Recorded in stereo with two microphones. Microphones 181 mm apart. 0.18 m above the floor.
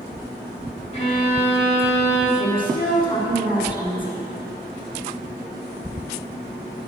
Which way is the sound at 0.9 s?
35° left (ahead or behind).